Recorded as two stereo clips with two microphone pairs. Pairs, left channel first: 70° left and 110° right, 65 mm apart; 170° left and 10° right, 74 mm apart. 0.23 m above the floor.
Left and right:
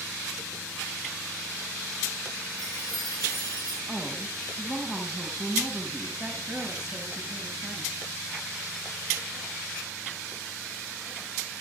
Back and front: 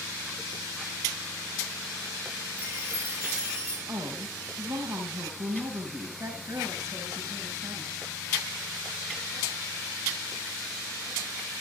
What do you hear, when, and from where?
2.6 s a chime: 60° left, 6 m
3.9 s a woman speaking: 25° right, 5 m
6.2 s a woman speaking: 35° right, 2.5 m